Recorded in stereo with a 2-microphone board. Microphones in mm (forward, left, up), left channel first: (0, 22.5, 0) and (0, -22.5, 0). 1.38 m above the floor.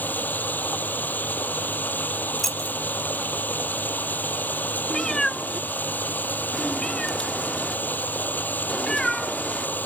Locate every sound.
0.0 s running water: 45° left (ahead or behind)
2.4 s keys jangling: 5° left (ahead or behind)
4.9 s a cat meowing: 15° left (ahead or behind)